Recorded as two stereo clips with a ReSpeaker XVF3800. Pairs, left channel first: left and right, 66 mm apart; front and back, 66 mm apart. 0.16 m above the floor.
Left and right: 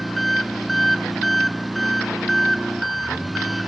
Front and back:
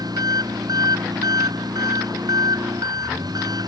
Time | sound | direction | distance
0.0 | an engine running | straight behind | ?